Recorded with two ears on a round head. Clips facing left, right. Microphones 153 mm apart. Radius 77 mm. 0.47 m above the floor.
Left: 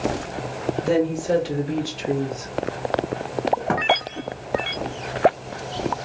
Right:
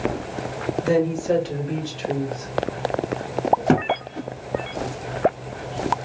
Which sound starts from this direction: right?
A thud, at 3.7 s.